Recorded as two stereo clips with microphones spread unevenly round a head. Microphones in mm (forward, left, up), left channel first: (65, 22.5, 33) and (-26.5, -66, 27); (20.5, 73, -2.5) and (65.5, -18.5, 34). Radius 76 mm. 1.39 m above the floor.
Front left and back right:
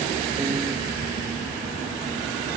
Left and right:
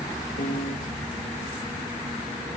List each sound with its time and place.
0.4 s a piano: 160° left, 0.9 m